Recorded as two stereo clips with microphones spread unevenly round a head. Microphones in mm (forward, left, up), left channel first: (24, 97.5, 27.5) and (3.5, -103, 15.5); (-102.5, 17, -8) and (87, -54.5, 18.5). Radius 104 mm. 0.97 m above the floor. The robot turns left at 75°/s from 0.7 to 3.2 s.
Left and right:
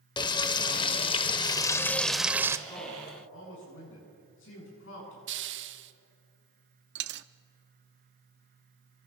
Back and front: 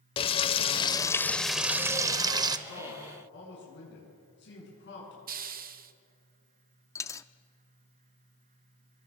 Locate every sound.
0.2 s frying: 110° left, 0.7 m; by 2.6 s 30° right, 0.7 m
2.7 s a man speaking: 155° left, 9 m; by 5.2 s 115° left, 9 m
5.3 s a hiss: 70° right, 1.1 m
7.0 s a dropped coin: 120° right, 0.6 m